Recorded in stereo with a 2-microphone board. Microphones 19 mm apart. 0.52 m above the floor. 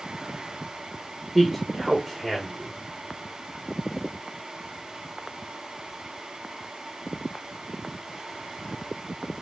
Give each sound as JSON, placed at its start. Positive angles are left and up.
{"t": 1.4, "sound": "a man speaking", "side_deg": -5, "distance_m": 1.5}